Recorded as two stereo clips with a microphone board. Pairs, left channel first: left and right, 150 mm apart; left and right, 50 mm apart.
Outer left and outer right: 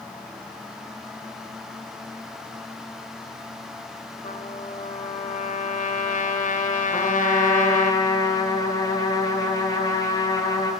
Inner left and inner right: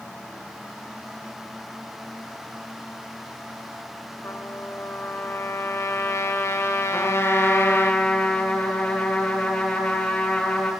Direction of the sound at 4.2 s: 55° left (ahead or behind).